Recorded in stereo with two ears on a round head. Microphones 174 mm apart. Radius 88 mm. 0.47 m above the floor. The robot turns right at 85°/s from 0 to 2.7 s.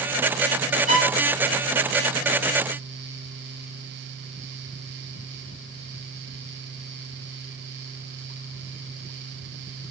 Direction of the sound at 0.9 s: 40° right (ahead or behind).